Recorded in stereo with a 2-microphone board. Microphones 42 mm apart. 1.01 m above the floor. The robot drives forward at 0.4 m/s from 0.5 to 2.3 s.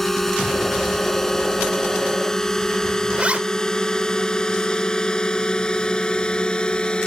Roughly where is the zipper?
Right.